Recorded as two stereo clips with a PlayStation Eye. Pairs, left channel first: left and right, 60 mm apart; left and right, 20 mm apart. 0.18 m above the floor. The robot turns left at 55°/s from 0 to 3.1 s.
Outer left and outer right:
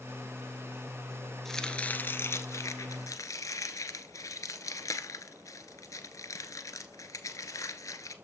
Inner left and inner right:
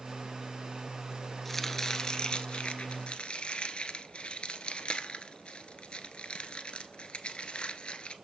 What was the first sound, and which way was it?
Chopping, 5° left (ahead or behind).